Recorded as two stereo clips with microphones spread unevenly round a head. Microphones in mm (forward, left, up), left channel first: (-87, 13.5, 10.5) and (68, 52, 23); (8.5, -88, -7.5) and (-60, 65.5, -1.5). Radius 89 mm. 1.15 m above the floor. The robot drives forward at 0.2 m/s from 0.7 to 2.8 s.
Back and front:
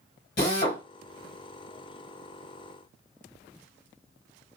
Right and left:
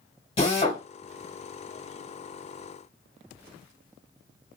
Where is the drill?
125° right, 2 m.